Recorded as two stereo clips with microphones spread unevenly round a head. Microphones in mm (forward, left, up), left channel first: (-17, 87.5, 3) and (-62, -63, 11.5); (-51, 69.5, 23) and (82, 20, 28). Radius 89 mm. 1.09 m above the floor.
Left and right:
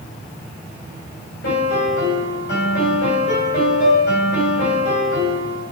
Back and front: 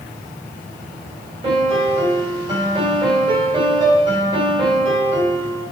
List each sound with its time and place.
1.4 s a piano: 35° left, 3 m